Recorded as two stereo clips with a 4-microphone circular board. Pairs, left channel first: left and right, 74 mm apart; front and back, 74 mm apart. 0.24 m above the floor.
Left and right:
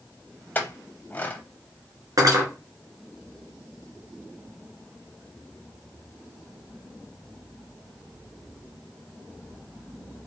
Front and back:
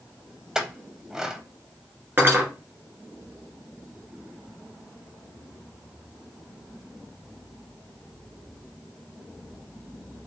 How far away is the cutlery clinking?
About 2 m.